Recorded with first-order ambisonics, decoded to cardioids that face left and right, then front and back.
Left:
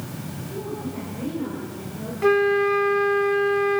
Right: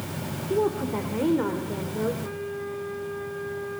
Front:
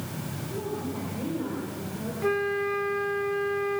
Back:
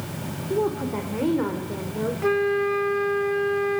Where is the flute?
100° left, 0.7 m.